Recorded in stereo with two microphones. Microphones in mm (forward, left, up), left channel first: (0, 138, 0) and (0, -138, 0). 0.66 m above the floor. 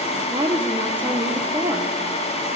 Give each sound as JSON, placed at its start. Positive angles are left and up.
{"t": 0.3, "sound": "a woman speaking", "side_deg": -20, "distance_m": 0.7}